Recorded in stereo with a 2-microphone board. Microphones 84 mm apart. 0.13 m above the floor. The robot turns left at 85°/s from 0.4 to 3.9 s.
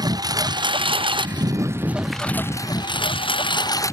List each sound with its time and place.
0.0 s a lawn mower: 50° right (ahead or behind); by 3.9 s 35° left (ahead or behind)